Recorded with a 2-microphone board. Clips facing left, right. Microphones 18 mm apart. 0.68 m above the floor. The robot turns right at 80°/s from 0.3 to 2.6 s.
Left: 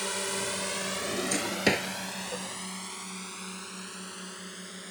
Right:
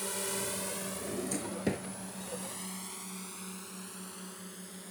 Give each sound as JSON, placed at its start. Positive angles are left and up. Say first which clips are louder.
{"t": 0.0, "sound": "a drone", "louder": "left 5 dB", "side_deg": 35}
{"t": 1.0, "sound": "a drawer", "louder": "left 5 dB", "side_deg": 20}